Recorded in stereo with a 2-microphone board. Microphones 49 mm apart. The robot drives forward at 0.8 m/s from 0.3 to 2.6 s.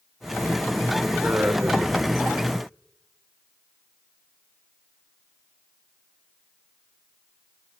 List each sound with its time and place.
1.2 s a man speaking: 40° right (ahead or behind), 1.7 m; by 2.6 s 45° right (ahead or behind), 1.7 m